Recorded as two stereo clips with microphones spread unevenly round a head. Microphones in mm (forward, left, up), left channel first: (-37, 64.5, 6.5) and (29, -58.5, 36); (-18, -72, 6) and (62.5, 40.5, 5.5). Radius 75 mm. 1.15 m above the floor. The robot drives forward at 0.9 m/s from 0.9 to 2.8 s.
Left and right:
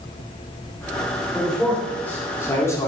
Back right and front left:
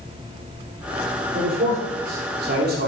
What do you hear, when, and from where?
1.3 s a man speaking: 30° left, 3.5 m; by 2.9 s 50° left, 2.5 m